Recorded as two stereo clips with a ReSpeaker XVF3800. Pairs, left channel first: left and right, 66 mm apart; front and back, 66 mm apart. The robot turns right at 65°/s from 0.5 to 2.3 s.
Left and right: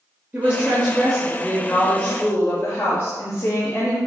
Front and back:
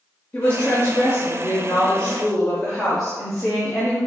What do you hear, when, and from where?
0.3 s a woman speaking: 40° right, 1.0 m; by 4.0 s 80° left, 1.0 m